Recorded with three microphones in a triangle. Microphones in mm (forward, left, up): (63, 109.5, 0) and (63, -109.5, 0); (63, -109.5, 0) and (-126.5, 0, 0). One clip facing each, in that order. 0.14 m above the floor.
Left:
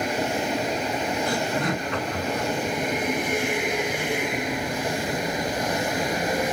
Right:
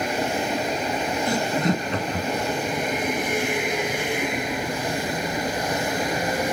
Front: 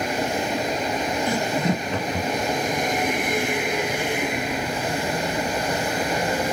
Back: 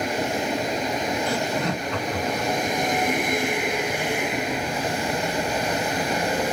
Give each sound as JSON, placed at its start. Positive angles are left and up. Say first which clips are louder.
{"t": 1.3, "sound": "laughter", "louder": "right 3 dB, front 2 dB", "azimuth_deg": -75, "distance_m": 1.6}